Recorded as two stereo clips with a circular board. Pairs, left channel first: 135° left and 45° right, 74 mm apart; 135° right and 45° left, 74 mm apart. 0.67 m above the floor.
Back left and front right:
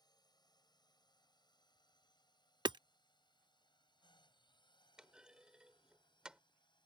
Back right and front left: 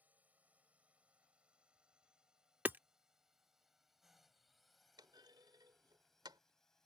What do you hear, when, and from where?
0.0 s a drone: 115° left; by 6.9 s 140° left
2.6 s hammering: 20° right
5.0 s a clunk: 35° left